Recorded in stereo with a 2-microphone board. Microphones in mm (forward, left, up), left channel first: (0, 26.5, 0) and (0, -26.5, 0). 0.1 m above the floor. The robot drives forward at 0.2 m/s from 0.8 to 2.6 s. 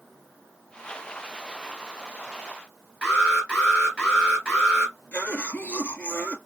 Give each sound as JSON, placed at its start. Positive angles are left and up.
{"t": 3.0, "sound": "an alarm", "side_deg": 20, "distance_m": 2.5}
{"t": 5.1, "sound": "a cough", "side_deg": 35, "distance_m": 1.9}